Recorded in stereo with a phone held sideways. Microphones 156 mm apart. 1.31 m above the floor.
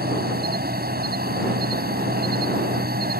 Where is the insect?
85° right.